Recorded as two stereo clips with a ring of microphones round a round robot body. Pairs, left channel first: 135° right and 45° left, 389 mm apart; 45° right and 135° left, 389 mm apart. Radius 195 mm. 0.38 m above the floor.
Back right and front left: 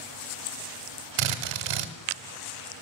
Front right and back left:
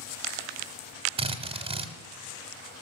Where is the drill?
60° left, 1.1 m.